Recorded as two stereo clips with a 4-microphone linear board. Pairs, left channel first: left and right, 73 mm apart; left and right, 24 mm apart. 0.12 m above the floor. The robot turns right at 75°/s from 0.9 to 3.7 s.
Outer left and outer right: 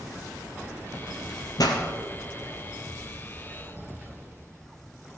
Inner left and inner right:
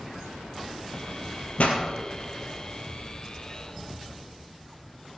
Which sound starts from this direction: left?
A pop, at 1.6 s.